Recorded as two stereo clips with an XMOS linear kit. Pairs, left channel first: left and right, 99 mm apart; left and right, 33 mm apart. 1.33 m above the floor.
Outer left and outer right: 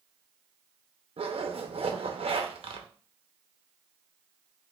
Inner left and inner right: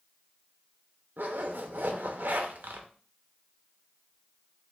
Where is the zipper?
70° right (ahead or behind), 0.6 m.